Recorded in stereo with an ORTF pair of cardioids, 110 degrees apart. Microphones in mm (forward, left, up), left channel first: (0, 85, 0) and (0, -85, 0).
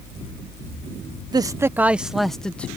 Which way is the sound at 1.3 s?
25° right.